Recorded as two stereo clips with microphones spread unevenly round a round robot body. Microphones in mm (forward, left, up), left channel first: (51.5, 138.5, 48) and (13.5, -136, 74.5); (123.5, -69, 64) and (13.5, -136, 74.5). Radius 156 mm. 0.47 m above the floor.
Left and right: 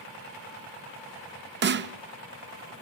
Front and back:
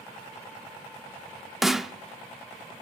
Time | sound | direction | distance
1.6 | a snare drum | 55° right | 0.8 m